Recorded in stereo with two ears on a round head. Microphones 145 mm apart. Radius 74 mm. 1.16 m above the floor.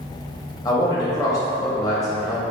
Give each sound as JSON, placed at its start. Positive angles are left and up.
{"t": 0.7, "sound": "a man speaking", "side_deg": 20, "distance_m": 0.9}